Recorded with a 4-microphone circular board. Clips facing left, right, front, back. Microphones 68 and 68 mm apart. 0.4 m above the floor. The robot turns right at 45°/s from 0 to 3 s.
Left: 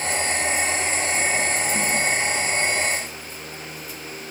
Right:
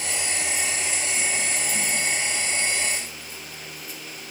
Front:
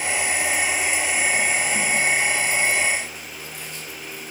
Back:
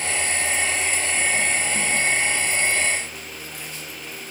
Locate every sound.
Only background noise.